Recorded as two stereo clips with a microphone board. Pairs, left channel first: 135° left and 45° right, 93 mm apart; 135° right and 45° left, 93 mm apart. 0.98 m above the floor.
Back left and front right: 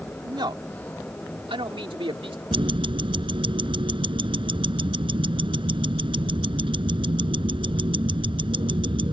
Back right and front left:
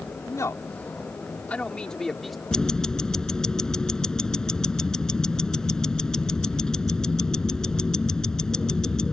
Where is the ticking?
55° right.